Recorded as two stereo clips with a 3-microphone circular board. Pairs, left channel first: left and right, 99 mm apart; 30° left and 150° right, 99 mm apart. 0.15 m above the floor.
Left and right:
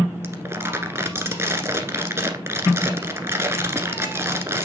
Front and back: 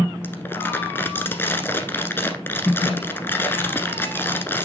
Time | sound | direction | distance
0.2 | crumpling | 35° right | 1.2 m